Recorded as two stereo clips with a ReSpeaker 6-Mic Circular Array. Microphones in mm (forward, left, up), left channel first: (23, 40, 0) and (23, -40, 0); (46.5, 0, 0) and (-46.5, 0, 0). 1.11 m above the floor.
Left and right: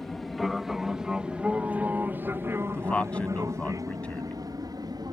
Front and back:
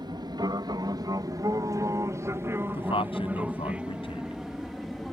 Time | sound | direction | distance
0.0 | an aircraft | 175° left | ?
2.7 | a man speaking | 15° left | ?